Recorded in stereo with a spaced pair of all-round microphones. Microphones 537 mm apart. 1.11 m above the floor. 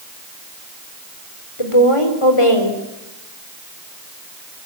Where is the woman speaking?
70° left (ahead or behind), 4 m.